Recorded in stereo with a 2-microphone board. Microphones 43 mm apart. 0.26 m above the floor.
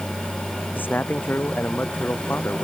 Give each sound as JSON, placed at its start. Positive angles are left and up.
{"t": 0.8, "sound": "a man speaking", "side_deg": 55}